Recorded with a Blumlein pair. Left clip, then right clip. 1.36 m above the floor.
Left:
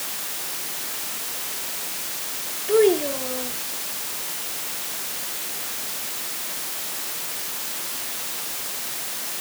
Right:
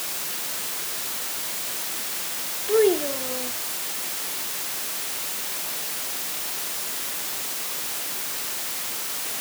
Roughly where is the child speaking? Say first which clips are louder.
Left 2 dB; ahead.